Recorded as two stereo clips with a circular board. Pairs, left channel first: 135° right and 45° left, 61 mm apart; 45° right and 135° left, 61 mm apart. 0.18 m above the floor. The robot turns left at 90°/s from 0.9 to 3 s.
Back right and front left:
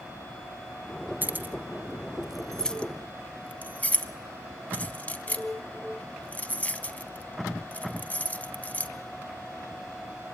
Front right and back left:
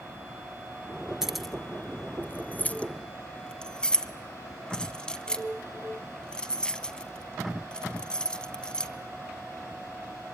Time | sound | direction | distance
1.2 | keys jangling | 60° left | 0.7 m